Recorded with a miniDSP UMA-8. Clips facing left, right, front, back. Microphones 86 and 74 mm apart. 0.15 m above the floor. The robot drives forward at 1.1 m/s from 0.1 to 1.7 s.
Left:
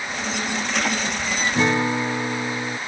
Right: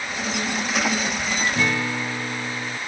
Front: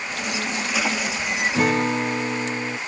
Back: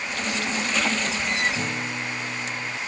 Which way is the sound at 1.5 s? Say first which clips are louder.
Left 4 dB, front 9 dB; 30° left.